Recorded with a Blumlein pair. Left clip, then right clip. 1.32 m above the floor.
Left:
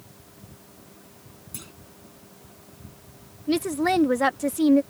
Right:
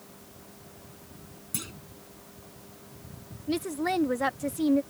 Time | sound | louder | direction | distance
1.5 | a clunk | right 5 dB | 15° right | ?
3.5 | a woman speaking | left 6 dB | 20° left | ?